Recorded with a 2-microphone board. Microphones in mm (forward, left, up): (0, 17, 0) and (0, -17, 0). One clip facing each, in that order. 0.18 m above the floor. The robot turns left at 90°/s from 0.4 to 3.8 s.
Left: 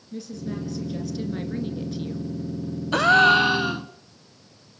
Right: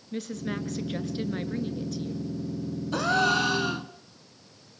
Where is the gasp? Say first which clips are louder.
Left 8 dB; 85° left, 0.9 m; by 3.9 s 5° left, 0.9 m.